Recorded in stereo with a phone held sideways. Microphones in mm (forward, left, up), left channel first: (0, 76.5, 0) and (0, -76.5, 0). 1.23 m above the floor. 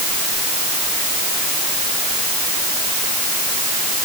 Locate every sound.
Only background noise.